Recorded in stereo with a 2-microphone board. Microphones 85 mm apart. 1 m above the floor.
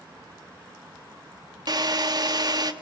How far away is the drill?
About 1.3 m.